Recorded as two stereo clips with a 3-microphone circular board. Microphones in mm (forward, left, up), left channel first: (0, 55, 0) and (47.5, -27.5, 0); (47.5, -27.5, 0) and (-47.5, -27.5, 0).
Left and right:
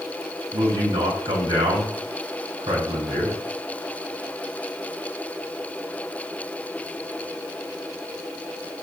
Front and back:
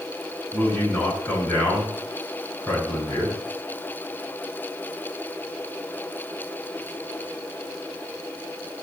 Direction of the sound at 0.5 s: 70° right.